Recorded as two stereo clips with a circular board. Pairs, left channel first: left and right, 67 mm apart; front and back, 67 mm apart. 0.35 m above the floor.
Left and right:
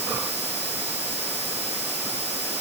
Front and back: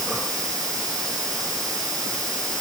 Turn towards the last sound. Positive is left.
No sound to turn to.